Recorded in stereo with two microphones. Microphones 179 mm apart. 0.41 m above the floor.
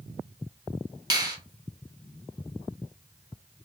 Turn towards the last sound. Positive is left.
turn(degrees=-20)  # may be behind; listen again after turning